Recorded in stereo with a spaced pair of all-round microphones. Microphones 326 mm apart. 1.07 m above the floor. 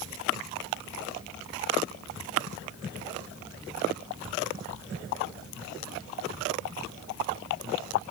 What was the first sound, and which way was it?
Only background noise.